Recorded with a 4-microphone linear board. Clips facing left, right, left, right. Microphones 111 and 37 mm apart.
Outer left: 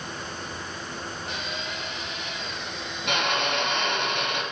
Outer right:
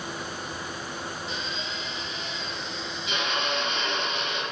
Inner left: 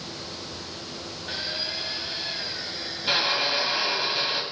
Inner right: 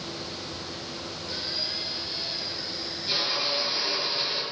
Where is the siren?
No siren in this recording.